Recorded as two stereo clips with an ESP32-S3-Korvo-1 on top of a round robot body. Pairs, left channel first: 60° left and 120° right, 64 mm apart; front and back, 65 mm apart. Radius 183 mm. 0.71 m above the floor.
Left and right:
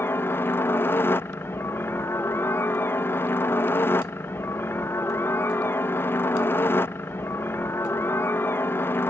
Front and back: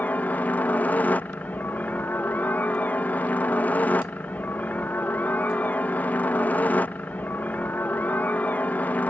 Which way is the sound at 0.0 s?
45° left.